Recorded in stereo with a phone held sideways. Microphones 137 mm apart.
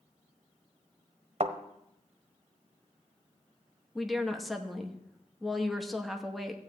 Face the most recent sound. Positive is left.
turn(degrees=0)  # may be behind; listen again after turning